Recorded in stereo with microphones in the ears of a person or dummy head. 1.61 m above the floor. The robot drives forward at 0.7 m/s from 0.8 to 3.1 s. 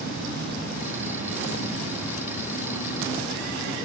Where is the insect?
55° right (ahead or behind), 0.8 m; by 3.9 s 20° right (ahead or behind), 2.0 m.